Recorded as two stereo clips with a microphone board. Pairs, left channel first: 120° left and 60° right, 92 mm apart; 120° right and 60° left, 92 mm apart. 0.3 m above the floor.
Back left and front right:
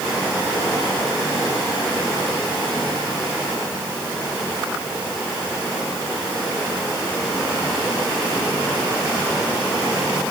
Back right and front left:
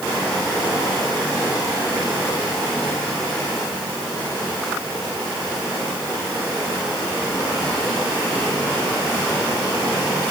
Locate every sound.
Only background noise.